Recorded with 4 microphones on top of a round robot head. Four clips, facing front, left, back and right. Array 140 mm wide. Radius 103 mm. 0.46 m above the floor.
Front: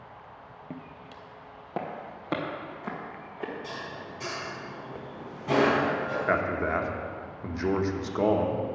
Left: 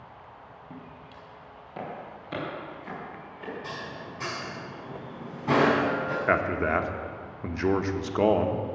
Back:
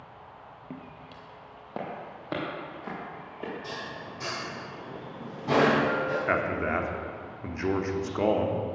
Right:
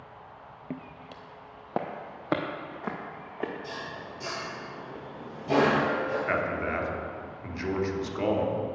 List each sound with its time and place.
0.7 s footsteps: 85° right, 0.7 m
3.6 s dishes clattering: 105° left, 3.5 m
6.3 s a man speaking: 85° left, 0.9 m